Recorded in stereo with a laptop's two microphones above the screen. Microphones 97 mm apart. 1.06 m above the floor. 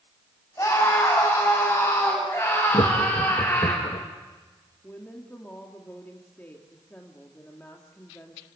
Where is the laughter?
65° left (ahead or behind), 1.6 m.